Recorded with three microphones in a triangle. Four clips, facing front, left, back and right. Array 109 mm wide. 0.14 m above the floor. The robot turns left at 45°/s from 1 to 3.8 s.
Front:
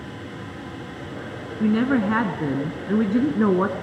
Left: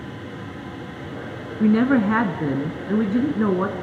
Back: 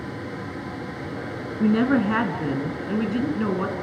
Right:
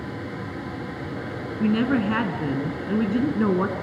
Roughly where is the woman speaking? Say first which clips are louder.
Left 4 dB, even; left.